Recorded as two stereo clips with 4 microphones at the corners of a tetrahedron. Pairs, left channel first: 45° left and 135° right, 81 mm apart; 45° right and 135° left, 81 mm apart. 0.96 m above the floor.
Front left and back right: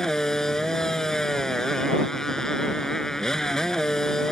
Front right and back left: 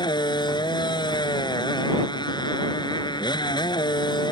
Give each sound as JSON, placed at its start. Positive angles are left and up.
{"t": 0.0, "sound": "a motorcycle", "azimuth_deg": -40}